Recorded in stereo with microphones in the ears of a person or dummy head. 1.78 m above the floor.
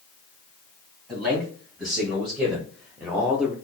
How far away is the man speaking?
About 2 m.